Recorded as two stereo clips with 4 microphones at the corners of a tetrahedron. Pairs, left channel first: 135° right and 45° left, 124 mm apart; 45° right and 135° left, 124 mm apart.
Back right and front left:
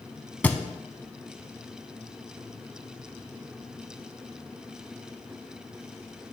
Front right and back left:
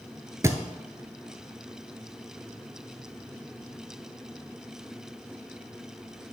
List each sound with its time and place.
0.4 s a thud: 160° left, 0.6 m